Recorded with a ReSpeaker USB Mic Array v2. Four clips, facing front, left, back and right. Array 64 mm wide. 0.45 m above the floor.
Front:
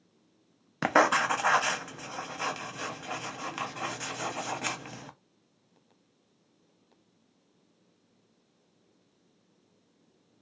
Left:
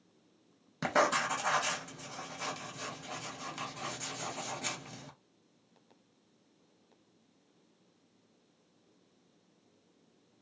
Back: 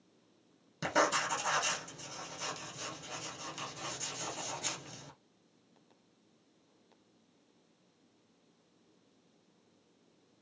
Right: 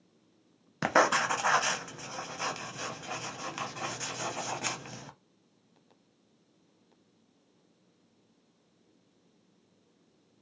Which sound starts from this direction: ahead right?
Writing, at 0.8 s.